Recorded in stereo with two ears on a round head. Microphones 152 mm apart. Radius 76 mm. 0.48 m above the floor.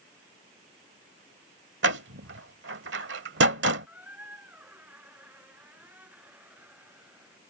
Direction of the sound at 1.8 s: 75° right (ahead or behind).